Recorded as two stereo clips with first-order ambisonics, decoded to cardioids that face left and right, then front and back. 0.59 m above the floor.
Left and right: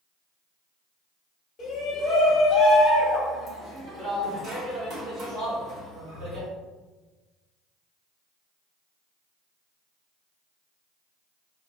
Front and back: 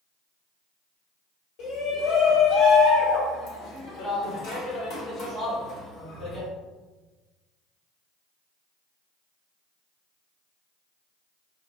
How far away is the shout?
About 1.3 m.